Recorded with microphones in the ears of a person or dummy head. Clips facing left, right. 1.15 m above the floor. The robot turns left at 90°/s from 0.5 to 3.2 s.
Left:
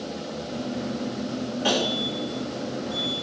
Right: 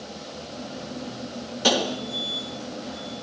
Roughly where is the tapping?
Right.